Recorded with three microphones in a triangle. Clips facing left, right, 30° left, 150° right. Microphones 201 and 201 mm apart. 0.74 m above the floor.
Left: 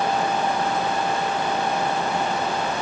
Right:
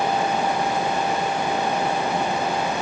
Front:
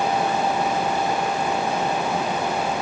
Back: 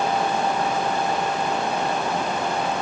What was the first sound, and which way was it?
Only background noise.